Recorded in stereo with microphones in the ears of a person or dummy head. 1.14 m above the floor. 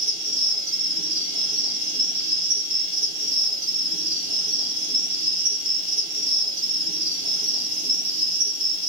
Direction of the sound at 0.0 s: 15° right (ahead or behind).